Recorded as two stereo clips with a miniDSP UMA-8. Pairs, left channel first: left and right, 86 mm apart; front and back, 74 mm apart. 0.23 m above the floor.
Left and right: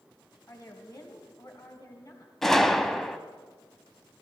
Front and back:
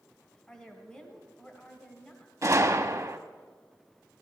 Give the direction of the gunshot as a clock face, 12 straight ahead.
6 o'clock.